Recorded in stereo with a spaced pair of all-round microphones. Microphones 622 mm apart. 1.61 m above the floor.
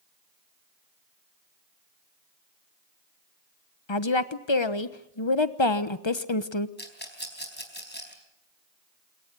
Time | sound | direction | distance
3.9 | a woman speaking | 45° left (ahead or behind) | 1.2 m
6.8 | a rattle | 15° left (ahead or behind) | 4 m